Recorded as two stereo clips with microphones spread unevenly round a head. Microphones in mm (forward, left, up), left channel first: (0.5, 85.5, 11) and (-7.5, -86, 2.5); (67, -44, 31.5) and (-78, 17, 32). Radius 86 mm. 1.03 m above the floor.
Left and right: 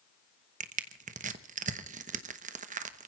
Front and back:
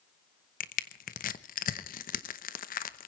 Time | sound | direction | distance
0.6 | crushing | 50° right | 1.0 m